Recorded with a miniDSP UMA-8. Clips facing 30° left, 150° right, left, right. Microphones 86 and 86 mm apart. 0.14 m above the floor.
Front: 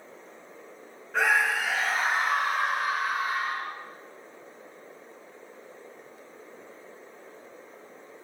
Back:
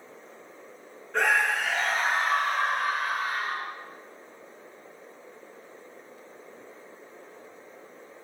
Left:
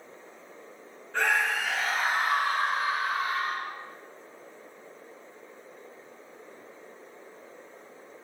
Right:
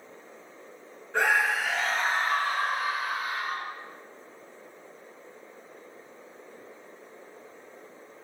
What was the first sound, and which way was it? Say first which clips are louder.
A scream: even, right 2 dB; 50° right.